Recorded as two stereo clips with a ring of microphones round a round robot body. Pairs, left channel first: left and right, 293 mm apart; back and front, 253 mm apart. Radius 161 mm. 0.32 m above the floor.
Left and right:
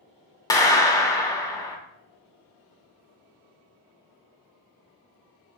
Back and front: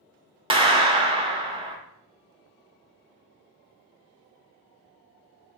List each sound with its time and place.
0.5 s a clap: 35° left, 0.7 m